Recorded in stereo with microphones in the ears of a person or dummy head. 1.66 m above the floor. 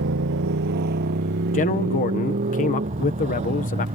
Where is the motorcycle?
60° right (ahead or behind); by 4.0 s 25° right (ahead or behind).